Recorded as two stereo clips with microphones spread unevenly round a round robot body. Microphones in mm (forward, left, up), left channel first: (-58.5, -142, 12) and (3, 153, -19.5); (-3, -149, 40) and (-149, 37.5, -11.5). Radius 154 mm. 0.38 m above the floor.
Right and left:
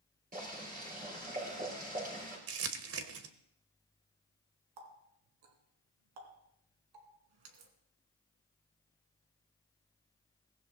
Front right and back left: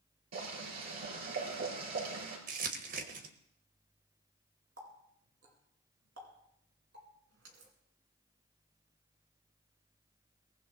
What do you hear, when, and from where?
0.3 s boiling: 140° left, 6.5 m
2.5 s crumpling: 95° left, 1.2 m
4.8 s a running tap: 75° left, 2.5 m